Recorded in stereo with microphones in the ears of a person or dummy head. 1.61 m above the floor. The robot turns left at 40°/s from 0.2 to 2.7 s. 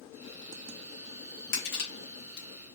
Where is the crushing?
55° left (ahead or behind), 1.4 m; by 2.5 s 65° left (ahead or behind), 1.4 m.